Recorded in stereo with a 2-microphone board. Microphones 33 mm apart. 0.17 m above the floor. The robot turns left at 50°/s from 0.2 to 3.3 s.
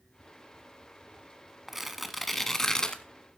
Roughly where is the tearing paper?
Behind.